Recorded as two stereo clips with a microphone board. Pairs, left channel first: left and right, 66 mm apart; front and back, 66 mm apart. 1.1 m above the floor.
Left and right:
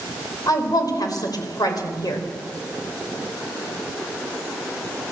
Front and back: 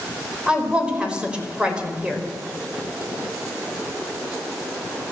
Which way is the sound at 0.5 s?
105° left.